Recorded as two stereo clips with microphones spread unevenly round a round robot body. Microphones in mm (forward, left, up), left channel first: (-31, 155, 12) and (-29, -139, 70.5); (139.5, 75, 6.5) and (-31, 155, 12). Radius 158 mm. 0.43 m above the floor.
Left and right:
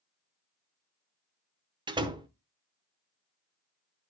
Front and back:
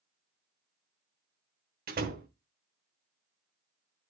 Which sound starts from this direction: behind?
A door slam, at 1.9 s.